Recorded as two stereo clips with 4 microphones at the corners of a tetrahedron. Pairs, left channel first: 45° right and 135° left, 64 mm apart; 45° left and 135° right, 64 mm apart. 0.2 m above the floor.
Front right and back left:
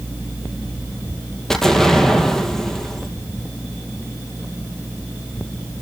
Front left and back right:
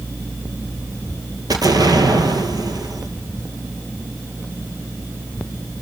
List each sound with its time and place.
1.5 s an explosion: 130° right, 2 m